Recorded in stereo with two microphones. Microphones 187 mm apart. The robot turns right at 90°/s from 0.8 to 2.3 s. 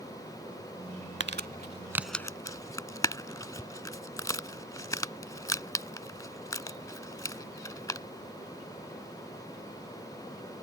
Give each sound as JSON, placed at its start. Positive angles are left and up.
{"t": 1.2, "sound": "crumpling", "side_deg": -75}